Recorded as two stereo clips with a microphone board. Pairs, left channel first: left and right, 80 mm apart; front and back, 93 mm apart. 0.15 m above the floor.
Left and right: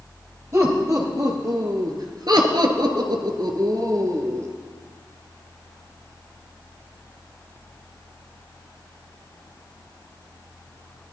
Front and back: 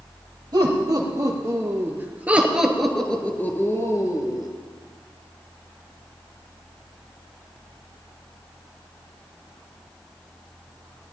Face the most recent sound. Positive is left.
turn(degrees=-40)